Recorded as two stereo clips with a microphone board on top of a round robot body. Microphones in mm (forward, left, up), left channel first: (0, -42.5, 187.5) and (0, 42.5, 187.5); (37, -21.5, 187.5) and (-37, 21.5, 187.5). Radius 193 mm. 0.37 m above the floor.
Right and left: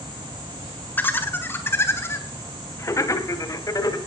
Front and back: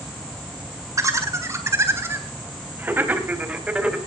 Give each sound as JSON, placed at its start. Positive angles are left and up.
{"t": 1.0, "sound": "laughter", "azimuth_deg": -160, "distance_m": 4.0}